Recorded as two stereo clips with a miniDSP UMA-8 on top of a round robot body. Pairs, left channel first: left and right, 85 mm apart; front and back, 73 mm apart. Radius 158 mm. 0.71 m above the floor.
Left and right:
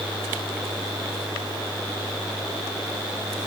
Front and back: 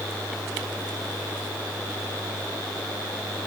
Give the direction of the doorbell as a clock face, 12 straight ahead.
I don't hear a doorbell.